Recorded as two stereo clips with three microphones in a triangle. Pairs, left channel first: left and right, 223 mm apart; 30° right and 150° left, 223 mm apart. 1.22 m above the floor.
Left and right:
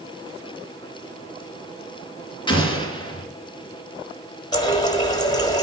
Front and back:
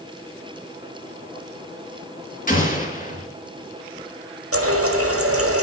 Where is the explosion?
20° left, 3.5 m.